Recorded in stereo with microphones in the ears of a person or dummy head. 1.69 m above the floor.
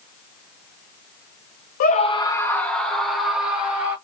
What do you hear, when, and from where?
1.8 s a scream: 45° left (ahead or behind), 0.9 m; by 4.0 s 10° right (ahead or behind), 3 m